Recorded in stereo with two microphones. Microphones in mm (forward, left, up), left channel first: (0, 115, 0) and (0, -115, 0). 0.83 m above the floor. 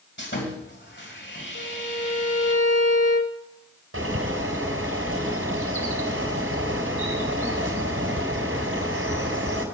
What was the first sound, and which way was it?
Sawing, 50° left (ahead or behind).